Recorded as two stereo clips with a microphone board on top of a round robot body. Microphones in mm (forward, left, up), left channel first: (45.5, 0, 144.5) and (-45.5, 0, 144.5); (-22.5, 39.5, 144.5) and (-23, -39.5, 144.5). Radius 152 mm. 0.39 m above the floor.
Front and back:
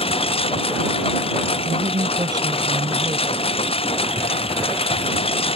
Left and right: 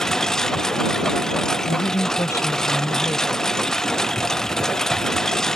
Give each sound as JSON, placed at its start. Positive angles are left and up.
{"t": 0.0, "sound": "a lawn mower", "azimuth_deg": 5}
{"t": 1.6, "sound": "a woman speaking", "azimuth_deg": 140}